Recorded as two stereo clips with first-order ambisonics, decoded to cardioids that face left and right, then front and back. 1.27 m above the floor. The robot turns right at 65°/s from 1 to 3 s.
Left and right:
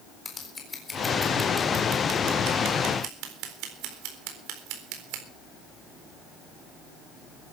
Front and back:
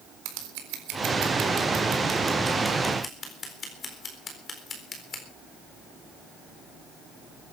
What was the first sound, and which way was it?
Scissors, 165° left.